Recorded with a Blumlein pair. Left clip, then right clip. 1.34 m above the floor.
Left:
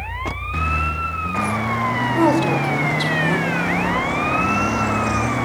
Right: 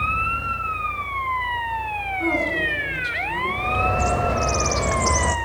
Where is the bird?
50° right, 3 m.